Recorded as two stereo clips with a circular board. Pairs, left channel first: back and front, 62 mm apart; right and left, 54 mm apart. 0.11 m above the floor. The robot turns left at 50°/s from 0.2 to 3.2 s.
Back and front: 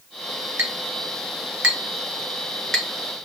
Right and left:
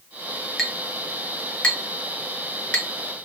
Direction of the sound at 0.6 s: Straight ahead.